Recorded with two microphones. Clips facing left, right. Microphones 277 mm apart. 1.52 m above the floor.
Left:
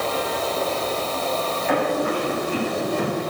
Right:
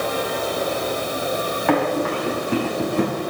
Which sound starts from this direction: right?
Running footsteps, at 1.7 s.